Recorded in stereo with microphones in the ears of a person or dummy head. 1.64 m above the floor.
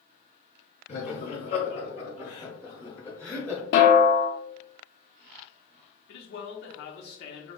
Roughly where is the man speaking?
Left.